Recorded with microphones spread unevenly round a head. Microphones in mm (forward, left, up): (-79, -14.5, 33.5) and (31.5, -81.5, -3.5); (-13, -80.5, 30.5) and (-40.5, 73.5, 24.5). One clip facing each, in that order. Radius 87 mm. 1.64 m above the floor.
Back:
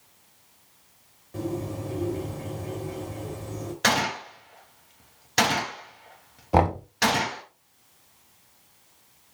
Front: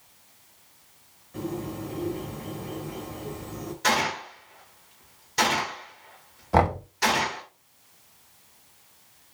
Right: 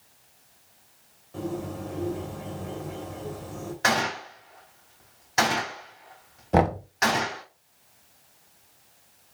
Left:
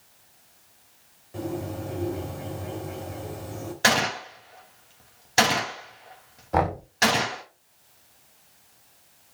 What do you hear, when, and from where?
1.3 s a bird: 175° left, 3 m
3.8 s a gunshot: 155° left, 3 m
6.5 s knocking: 140° right, 1.4 m